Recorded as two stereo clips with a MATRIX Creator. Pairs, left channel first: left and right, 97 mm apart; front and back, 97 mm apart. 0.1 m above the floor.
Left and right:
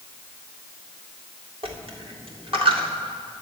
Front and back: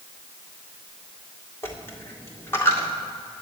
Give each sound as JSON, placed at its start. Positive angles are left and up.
{"t": 1.6, "sound": "a dropped coin", "azimuth_deg": -65, "distance_m": 2.0}